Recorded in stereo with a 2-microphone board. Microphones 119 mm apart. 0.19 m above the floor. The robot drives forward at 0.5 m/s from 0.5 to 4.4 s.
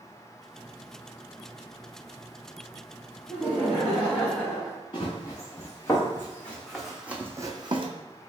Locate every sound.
3.3 s laughter: 10° right (ahead or behind), 1.4 m
4.9 s running footsteps: 35° left (ahead or behind), 1.7 m; by 7.9 s 50° right (ahead or behind), 0.7 m